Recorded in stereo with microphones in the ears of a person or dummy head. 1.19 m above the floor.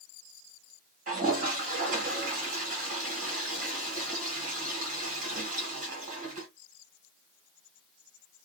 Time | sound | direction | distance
1.1 | a toilet flushing | 40° right (ahead or behind) | 1.1 m